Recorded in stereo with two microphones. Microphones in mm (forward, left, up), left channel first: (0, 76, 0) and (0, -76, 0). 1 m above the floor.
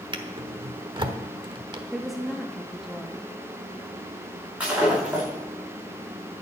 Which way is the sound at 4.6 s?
10° right (ahead or behind).